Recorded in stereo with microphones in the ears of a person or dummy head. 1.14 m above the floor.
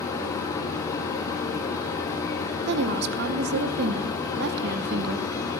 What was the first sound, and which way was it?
A machine running, 15° left (ahead or behind).